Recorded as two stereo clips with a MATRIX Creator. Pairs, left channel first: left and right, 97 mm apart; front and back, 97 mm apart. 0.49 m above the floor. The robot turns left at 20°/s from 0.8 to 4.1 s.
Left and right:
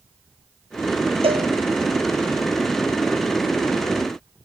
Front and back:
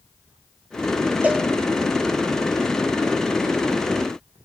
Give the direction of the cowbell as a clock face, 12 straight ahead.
4 o'clock.